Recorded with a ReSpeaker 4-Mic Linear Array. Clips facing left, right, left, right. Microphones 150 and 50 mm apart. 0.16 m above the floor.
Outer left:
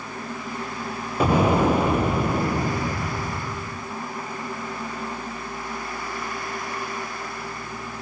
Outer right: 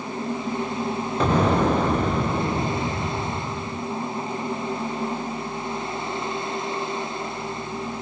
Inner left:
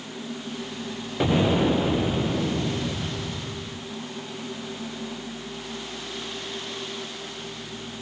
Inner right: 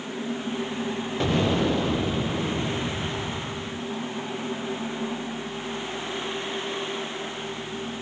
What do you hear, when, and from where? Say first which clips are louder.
1.2 s an explosion: outer left 1 dB, inner left 3 dB; 10° left (ahead or behind), 1.9 m